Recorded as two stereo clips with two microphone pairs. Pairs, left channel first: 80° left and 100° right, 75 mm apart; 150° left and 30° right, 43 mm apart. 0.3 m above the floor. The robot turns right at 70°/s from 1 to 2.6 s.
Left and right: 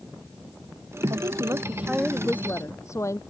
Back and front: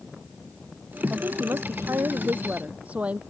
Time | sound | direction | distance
1.1 | a woman speaking | 75° right | ?